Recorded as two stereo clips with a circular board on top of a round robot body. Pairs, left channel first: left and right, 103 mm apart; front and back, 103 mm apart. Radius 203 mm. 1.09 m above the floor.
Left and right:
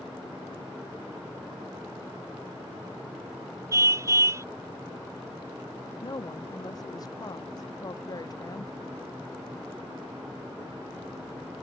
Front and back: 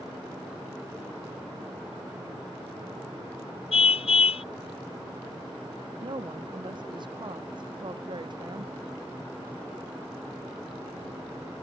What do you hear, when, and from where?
3.7 s a car horn: 25° right
6.0 s a woman speaking: 140° left